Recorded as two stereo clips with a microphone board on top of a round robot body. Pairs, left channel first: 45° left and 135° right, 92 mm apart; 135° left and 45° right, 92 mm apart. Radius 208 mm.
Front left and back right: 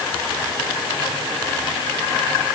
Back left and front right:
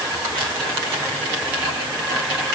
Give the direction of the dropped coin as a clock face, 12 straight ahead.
No dropped coin in this recording.